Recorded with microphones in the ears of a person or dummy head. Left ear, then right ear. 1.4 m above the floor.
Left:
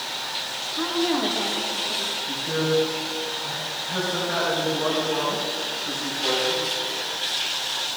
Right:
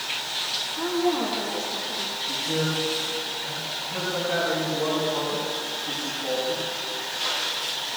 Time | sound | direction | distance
0.7 | a woman speaking | 55° left (ahead or behind) | 2.0 m
2.3 | a man speaking | 80° left | 5.5 m